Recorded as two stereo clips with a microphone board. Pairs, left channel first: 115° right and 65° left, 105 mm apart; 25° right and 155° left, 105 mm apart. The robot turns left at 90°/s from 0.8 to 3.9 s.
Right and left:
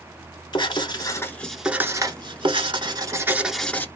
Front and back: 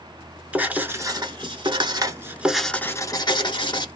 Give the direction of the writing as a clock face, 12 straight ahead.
4 o'clock.